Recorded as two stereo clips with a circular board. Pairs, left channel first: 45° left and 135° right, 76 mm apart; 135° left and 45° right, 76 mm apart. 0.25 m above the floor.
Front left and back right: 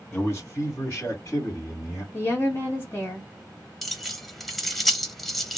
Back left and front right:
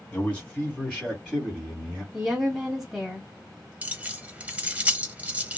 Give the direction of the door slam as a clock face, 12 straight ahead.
I don't hear a door slam.